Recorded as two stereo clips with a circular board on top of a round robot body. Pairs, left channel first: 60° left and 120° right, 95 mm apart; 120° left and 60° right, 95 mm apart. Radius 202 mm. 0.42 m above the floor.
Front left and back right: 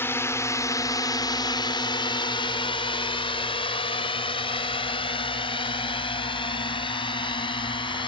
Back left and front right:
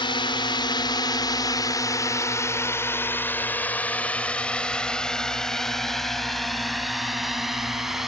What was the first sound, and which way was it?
A drone, 120° left.